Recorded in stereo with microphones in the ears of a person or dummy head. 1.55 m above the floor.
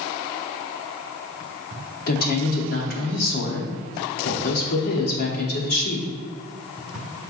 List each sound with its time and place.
2.1 s a woman speaking: 50° left (ahead or behind), 1.0 m